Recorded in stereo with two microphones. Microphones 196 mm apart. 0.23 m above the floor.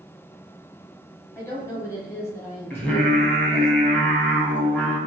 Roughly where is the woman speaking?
Centre.